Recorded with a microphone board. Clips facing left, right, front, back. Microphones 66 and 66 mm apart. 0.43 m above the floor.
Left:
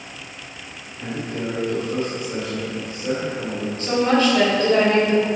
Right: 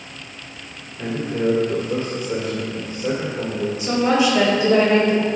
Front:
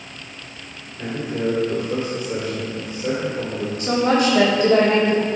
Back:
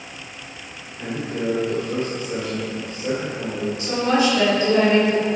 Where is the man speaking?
65° right, 2 m.